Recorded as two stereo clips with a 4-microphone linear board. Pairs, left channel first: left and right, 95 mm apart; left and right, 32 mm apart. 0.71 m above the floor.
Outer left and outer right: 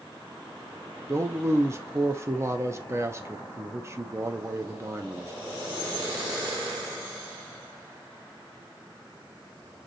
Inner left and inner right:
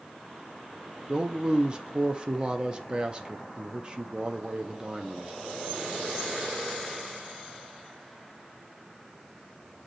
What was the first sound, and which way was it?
A man speaking, 30° right (ahead or behind).